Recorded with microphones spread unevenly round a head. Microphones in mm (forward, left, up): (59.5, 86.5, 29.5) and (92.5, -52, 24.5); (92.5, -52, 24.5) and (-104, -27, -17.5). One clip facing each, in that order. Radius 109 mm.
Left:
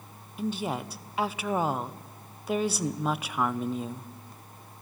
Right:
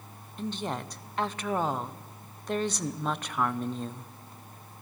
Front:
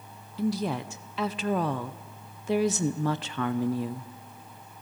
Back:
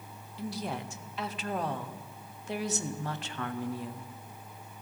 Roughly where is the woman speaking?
Ahead.